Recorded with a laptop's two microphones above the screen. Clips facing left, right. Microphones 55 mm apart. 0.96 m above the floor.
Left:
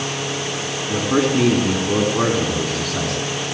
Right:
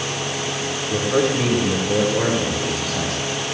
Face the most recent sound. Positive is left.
turn(degrees=85)